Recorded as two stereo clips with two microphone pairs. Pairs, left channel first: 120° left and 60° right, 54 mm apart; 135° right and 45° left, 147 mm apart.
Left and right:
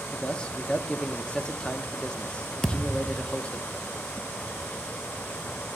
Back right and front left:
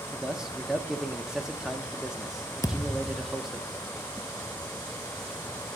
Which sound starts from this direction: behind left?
A man speaking, at 0.1 s.